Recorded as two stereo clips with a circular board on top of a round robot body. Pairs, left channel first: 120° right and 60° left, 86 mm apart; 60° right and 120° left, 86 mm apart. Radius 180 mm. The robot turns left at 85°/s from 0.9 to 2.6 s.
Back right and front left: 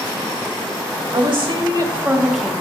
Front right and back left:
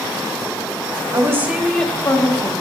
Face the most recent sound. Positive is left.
turn(degrees=-50)